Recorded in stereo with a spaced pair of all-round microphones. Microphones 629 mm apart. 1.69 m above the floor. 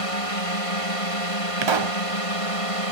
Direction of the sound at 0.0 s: 60° left (ahead or behind).